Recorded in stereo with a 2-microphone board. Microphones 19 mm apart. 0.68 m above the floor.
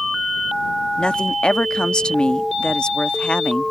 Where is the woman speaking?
50° left (ahead or behind).